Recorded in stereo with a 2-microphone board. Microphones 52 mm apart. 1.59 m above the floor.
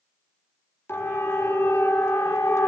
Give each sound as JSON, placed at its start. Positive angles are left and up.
{"t": 0.9, "sound": "a siren", "side_deg": 50, "distance_m": 5.0}